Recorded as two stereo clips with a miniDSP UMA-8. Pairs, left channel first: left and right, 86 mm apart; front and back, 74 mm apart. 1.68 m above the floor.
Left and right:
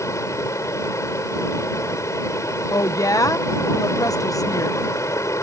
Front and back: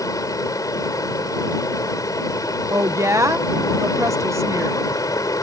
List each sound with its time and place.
0.0 s running water: 35° left
2.7 s a woman speaking: 135° left